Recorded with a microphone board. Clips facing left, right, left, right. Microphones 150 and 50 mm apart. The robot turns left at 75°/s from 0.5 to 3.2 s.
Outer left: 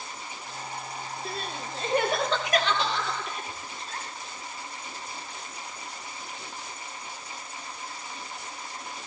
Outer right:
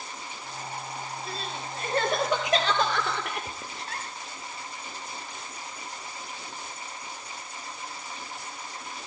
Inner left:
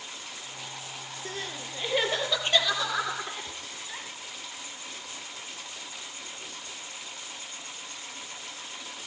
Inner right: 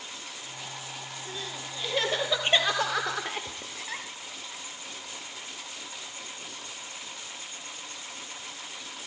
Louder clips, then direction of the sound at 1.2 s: Outer left 1 dB, inner left 3 dB; 65° left (ahead or behind).